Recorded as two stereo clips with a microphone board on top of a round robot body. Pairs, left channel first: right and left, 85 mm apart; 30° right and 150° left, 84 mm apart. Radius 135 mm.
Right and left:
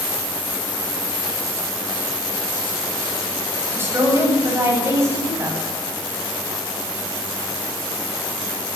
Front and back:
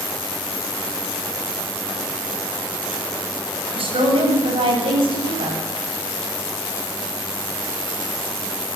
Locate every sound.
3.8 s a woman speaking: 155° left, 9 m; by 5.6 s 150° left, 10.5 m